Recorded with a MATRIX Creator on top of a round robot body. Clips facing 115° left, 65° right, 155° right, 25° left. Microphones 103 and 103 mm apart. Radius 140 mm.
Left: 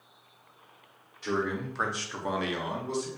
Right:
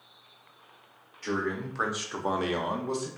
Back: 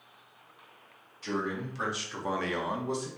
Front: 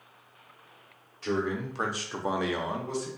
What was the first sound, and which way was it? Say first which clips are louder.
A man speaking: left 1 dB, front 3 dB; 40° left.